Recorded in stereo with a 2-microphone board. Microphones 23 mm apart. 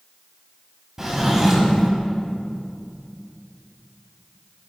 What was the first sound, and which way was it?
A drawer, 15° right (ahead or behind).